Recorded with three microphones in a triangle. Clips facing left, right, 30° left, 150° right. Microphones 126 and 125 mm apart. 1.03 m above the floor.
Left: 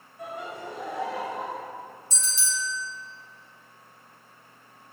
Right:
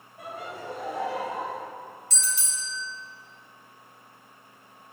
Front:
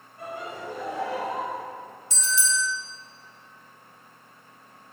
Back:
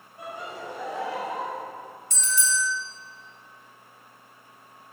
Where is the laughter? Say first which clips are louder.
Left 1 dB, front 1 dB; 80° right, 4 m; by 1.6 s 70° right, 3.5 m.